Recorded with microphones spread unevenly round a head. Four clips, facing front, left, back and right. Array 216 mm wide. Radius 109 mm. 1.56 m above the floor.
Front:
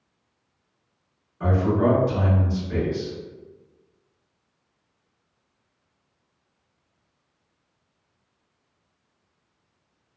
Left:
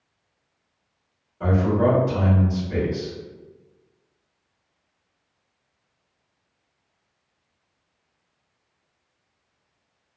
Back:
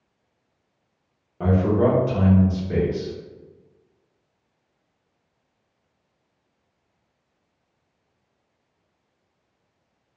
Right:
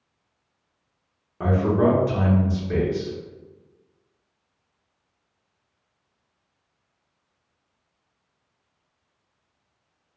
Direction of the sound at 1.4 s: 140° right.